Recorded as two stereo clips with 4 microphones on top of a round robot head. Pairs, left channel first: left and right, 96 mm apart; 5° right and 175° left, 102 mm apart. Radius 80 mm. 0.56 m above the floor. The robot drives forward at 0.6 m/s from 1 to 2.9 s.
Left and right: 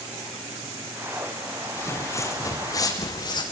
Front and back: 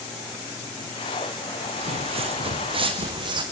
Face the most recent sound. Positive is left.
turn(degrees=130)